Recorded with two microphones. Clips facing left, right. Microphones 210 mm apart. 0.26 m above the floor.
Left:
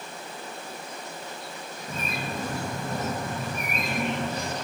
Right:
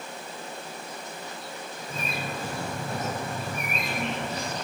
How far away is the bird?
About 5 m.